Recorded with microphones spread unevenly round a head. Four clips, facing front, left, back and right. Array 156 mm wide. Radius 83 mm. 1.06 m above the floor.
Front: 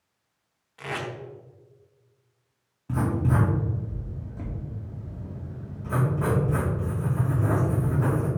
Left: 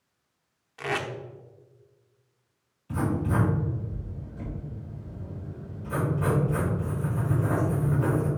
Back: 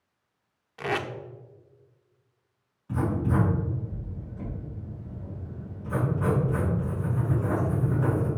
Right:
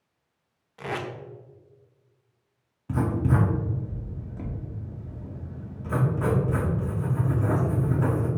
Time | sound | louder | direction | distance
0.8 | tape being pulled | left 2 dB, back 4 dB | 175° right | 0.7 m
2.9 | writing | right 2 dB, front 1 dB | 50° right | 2 m